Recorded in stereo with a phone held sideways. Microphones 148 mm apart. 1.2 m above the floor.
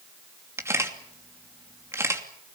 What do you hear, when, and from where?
0.6 s a camera shutter: 15° right (ahead or behind), 2.5 m